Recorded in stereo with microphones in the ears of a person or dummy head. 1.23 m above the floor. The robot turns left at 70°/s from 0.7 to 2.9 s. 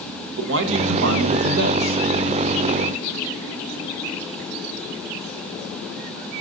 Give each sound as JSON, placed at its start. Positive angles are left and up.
{"t": 0.4, "sound": "a man speaking", "azimuth_deg": -65, "distance_m": 0.8}